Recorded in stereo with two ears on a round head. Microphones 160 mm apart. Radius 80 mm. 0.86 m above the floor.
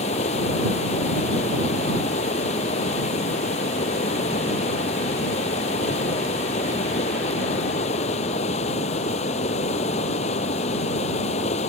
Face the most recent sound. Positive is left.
turn(degrees=40)  # may be behind; listen again after turning